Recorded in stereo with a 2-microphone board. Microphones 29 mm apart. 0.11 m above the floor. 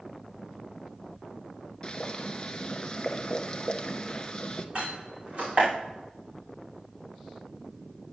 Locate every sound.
1.8 s boiling: 30° left (ahead or behind), 0.8 m
4.8 s a door slam: 40° right (ahead or behind), 5.5 m